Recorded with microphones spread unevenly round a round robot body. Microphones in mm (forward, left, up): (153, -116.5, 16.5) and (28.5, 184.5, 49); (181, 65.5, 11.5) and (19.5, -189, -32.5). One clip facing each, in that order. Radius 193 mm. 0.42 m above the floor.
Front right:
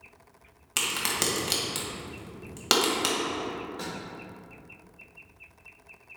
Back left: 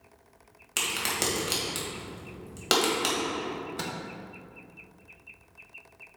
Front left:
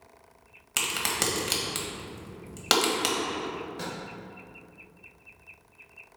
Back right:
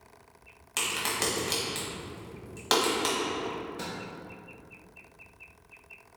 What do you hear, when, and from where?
0.8 s a crack: 10° left, 1.6 m
3.5 s a microwave: 155° left, 0.8 m